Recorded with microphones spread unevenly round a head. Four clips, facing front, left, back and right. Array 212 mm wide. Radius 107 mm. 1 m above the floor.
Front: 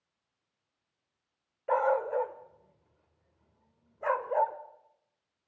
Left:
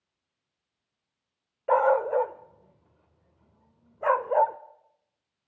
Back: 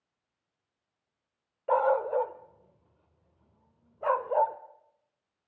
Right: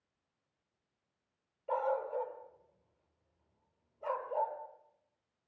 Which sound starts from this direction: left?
A dog barking, at 1.7 s.